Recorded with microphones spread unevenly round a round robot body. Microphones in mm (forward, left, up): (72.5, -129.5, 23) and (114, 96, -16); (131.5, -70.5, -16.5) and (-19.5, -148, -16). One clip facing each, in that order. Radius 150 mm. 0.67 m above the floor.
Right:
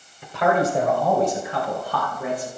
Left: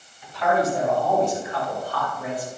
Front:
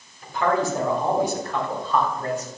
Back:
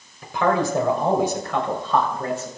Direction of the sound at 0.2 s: 160° right.